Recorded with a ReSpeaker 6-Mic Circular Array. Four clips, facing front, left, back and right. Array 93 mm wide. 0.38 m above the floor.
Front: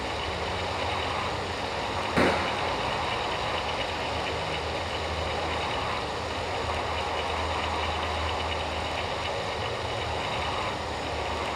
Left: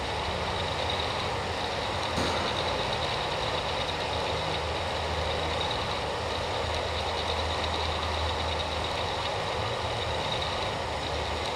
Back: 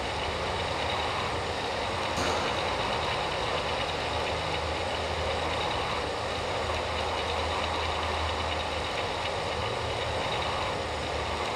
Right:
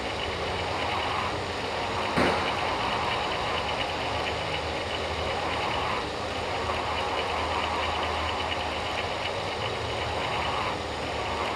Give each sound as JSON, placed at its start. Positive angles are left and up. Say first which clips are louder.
{"t": 0.0, "sound": "running water", "louder": "even, even", "azimuth_deg": 80, "distance_m": 10.0}
{"t": 2.2, "sound": "a gunshot", "louder": "right 6 dB, front 7 dB", "azimuth_deg": -30, "distance_m": 1.6}